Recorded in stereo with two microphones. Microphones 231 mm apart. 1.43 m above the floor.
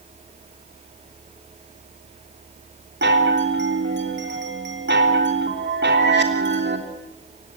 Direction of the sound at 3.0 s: 50° right (ahead or behind).